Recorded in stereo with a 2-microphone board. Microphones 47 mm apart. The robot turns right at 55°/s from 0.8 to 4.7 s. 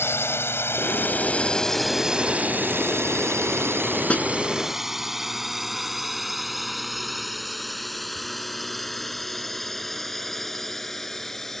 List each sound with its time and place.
0.0 s a drone: 60° left (ahead or behind); by 11.6 s 10° left (ahead or behind)
4.1 s a snare drum: 25° left (ahead or behind); by 4.2 s 35° left (ahead or behind)